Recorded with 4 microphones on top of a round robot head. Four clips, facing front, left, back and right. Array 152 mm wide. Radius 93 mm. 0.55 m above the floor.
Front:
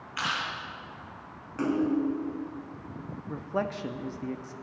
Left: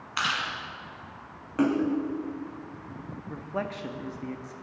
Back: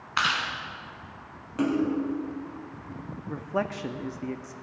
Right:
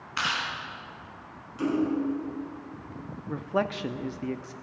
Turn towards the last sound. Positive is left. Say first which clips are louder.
# right 5 dB, back 2 dB
turn(degrees=-105)